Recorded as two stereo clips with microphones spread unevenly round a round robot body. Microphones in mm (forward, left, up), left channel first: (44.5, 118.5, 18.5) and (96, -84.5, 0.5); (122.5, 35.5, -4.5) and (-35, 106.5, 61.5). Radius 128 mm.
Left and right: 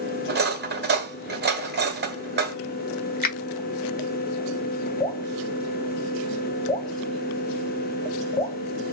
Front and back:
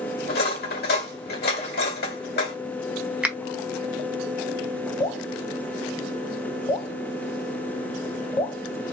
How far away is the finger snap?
About 1.4 m.